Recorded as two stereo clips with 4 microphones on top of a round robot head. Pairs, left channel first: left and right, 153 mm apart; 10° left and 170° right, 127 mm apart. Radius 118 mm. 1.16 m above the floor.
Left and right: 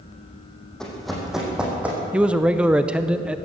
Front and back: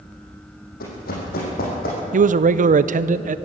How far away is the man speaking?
About 0.6 m.